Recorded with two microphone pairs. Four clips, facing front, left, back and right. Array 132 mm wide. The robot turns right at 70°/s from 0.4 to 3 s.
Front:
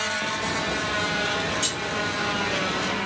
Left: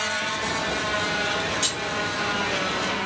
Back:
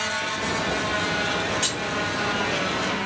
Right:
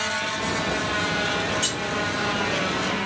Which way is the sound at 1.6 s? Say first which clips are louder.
Right 1 dB, back 1 dB; 170° left.